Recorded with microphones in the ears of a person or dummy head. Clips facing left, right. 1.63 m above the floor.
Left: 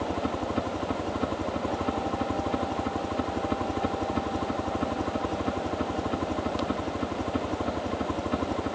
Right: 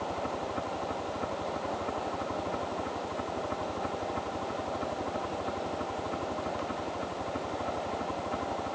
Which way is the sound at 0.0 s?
55° left (ahead or behind).